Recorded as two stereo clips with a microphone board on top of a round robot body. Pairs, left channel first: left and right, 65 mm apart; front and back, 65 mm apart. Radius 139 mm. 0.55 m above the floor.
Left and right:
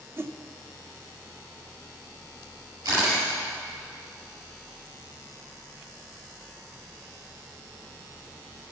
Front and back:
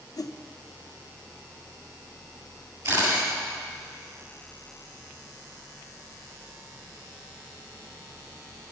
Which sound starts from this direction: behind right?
A camera shutter, at 2.9 s.